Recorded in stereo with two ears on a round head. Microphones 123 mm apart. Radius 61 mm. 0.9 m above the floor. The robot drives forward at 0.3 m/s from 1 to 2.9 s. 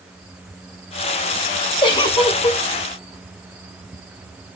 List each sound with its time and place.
1.8 s a giggle: 35° left (ahead or behind), 0.5 m; by 2.6 s 25° left (ahead or behind), 0.7 m